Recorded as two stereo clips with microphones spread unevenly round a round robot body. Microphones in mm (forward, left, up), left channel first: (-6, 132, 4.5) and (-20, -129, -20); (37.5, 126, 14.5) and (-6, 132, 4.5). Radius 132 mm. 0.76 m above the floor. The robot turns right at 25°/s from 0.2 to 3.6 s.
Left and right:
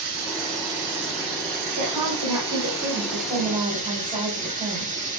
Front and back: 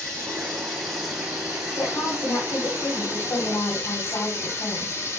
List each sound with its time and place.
0.0 s running water: 115° right, 8 m; by 5.2 s 30° right, 8 m
1.8 s a woman speaking: 70° right, 4.5 m; by 5.0 s 20° right, 4.5 m